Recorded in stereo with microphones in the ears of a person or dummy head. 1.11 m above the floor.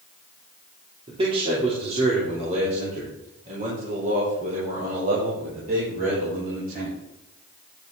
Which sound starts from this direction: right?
A man speaking, at 1.1 s.